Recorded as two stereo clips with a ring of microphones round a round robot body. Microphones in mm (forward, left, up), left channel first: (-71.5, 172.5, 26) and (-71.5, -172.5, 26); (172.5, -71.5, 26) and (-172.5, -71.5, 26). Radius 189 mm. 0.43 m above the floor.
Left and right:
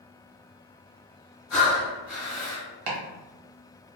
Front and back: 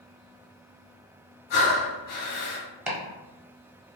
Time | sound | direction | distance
1.5 | breathing | 40° left | 1.5 m
2.9 | chopping | 95° right | 1.0 m